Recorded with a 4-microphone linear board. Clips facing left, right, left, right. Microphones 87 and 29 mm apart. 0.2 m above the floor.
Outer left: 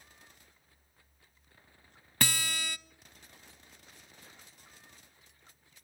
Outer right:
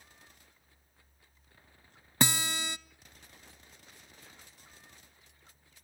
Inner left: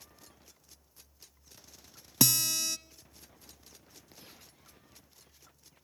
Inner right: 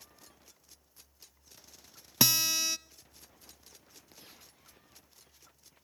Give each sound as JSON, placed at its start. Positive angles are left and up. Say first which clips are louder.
{"t": 2.2, "sound": "a guitar", "louder": "outer right 3 dB, inner right 1 dB", "side_deg": -20, "distance_m": 0.7}